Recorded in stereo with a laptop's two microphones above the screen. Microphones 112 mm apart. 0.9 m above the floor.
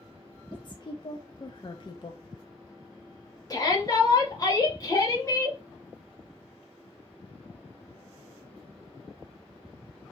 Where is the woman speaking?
45° left (ahead or behind), 0.7 m.